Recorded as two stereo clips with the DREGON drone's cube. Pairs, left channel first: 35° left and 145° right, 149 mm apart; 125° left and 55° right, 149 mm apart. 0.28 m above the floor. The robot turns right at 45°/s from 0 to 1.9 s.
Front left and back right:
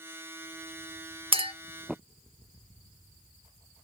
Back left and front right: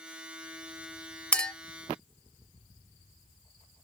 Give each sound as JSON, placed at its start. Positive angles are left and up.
{"t": 1.3, "sound": "a clink", "azimuth_deg": -160, "distance_m": 0.5}